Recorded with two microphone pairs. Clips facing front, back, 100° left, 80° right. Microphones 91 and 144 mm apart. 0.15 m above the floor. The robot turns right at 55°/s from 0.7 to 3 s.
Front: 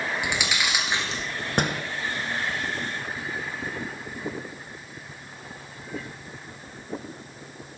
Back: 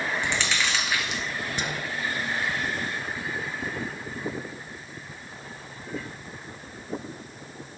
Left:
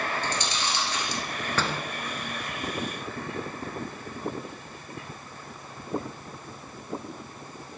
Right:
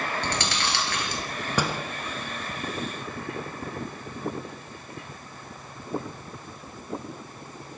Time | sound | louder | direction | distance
0.2 | chewing | even, right 1 dB | 75° right | 1.7 m
1.6 | a door slam | front 9 dB, right 3 dB | 5° right | 1.3 m